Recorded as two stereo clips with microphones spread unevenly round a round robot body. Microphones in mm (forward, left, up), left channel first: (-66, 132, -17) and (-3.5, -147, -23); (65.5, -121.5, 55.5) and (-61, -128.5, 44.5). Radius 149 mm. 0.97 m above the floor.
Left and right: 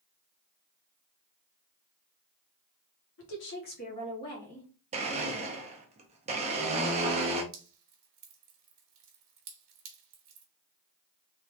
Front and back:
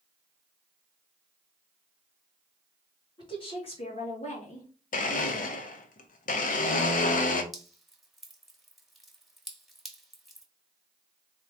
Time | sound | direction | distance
3.2 | a woman speaking | 60° left | 1.3 m
4.9 | a blender | 5° right | 0.5 m
7.5 | dripping | 90° right | 1.2 m